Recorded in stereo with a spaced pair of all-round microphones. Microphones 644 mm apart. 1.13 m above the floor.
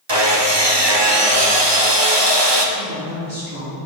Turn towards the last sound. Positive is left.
turn(degrees=-30)  # may be behind; listen again after turning